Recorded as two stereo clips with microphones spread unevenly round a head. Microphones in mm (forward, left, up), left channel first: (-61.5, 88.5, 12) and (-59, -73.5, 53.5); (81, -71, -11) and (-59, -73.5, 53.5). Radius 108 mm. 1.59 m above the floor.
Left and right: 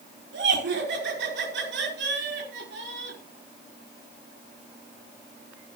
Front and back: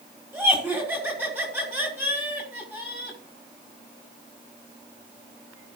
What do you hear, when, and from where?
0.3 s laughter: 100° right, 6 m